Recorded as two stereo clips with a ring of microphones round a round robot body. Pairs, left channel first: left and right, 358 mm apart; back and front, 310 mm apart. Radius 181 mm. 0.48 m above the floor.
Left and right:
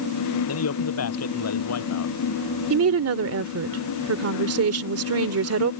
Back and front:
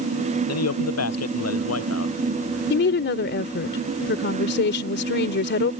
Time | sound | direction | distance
0.5 | a man speaking | 140° left | ?
2.7 | a woman speaking | 130° right | ?